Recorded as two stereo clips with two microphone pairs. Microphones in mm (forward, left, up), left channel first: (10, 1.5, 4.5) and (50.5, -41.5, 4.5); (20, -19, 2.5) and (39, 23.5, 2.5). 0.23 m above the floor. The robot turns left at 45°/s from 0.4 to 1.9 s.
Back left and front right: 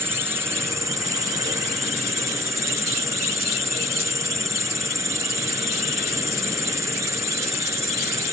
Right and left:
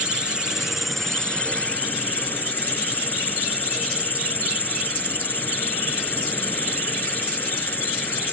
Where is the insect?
5° right; by 8.3 s 70° right.